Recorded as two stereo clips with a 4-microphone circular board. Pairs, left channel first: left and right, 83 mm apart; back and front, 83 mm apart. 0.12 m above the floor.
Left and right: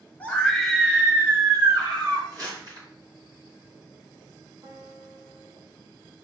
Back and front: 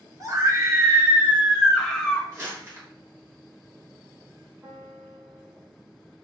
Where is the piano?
60° right, 2.5 m.